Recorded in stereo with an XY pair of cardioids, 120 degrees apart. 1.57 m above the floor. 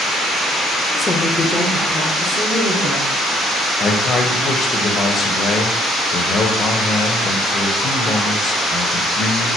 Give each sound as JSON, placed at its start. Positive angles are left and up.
{"t": 0.9, "sound": "a woman speaking", "azimuth_deg": 35, "distance_m": 0.7}
{"t": 3.8, "sound": "a man speaking", "azimuth_deg": 40, "distance_m": 0.8}